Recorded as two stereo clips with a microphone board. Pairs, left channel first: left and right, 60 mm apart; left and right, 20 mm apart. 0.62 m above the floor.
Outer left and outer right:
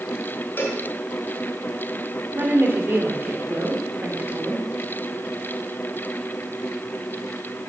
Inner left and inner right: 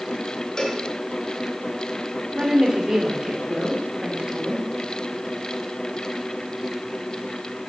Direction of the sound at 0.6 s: 35° left (ahead or behind).